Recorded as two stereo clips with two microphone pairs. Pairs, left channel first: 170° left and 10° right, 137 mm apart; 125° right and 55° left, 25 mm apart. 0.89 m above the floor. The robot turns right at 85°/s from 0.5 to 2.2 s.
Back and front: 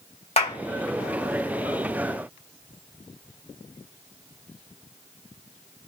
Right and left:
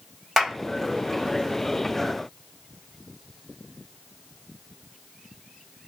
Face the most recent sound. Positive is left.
turn(degrees=-80)